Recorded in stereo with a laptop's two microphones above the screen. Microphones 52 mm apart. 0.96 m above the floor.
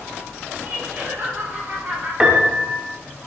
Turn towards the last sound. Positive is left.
turn(degrees=-20)  # may be behind; listen again after turning